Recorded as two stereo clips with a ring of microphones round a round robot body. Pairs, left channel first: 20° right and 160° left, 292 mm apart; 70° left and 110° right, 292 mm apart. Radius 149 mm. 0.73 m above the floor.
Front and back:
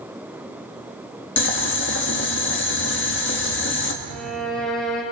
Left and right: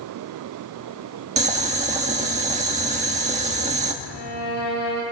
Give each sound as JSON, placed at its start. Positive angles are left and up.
{"t": 1.4, "sound": "boiling", "azimuth_deg": -55, "distance_m": 1.4}
{"t": 4.0, "sound": "a violin", "azimuth_deg": 65, "distance_m": 5.5}